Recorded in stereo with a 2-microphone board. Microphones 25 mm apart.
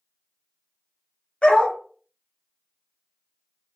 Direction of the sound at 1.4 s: 50° left (ahead or behind).